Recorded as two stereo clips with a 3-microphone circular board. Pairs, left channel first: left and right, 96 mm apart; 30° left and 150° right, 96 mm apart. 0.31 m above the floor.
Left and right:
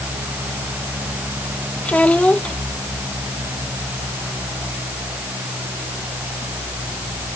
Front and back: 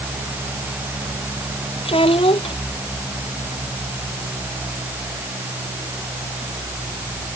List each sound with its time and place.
1.9 s a child speaking: 15° left